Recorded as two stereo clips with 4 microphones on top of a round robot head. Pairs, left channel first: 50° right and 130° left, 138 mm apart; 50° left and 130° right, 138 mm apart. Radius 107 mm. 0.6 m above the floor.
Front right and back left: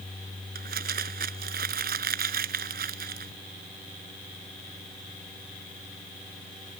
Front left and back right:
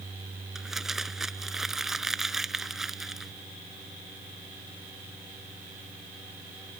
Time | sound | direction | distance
0.6 | crumpling | 140° left | ?